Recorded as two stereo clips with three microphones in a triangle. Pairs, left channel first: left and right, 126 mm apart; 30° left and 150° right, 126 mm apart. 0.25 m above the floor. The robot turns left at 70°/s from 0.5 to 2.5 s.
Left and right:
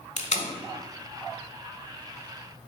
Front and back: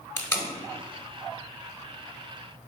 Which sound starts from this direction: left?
Tape being pulled, at 0.2 s.